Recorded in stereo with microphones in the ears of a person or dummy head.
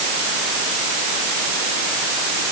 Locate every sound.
Only background noise.